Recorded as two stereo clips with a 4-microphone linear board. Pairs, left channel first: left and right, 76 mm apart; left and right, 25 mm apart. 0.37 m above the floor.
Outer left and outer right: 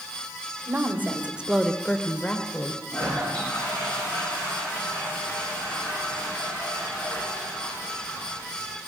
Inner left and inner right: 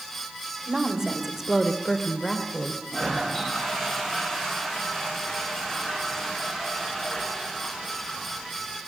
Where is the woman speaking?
30° right (ahead or behind), 1.4 m; by 2.8 s 30° left (ahead or behind), 1.4 m.